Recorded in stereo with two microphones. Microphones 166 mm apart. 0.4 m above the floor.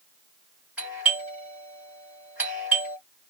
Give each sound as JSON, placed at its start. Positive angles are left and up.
{"t": 0.8, "sound": "a doorbell", "side_deg": -10, "distance_m": 1.6}